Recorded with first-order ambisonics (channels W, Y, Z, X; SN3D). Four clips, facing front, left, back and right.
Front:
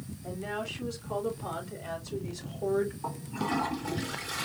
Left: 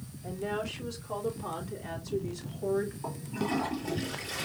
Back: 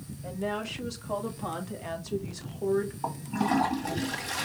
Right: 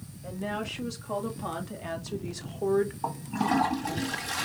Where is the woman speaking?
145° right, 2.5 m; by 2.9 s 100° right, 1.3 m.